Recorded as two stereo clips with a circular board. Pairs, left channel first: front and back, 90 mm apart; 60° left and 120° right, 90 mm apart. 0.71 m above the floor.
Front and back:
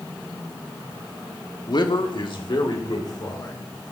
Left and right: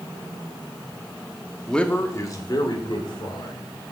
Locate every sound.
1.7 s a man speaking: 25° right, 1.2 m; by 3.6 s 35° left, 3.5 m